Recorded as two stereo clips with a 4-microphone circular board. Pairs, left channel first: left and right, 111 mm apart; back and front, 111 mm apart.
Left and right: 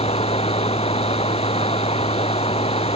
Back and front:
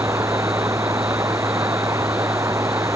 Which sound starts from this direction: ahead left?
Running water, at 0.0 s.